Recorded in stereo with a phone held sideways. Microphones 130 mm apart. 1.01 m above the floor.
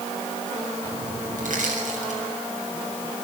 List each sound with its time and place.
1.4 s crushing: 75° right (ahead or behind), 6.5 m